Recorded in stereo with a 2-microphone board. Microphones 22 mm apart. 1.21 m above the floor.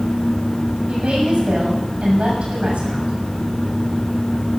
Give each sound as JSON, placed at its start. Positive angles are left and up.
{"t": 0.9, "sound": "a woman speaking", "side_deg": -70, "distance_m": 6.5}